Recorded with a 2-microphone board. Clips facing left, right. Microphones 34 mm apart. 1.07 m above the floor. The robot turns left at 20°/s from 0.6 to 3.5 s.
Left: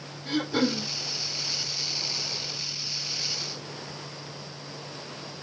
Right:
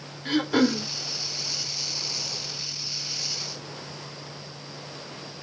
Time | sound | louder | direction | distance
0.2 | throat clearing | right 4 dB | 65° right (ahead or behind) | 2 m